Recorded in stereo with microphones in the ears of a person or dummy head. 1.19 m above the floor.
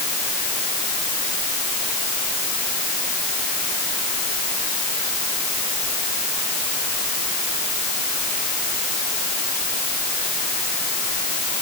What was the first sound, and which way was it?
Only background noise.